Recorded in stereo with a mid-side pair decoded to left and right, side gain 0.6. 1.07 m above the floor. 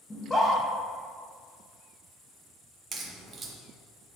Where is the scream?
15° left, 1.2 m.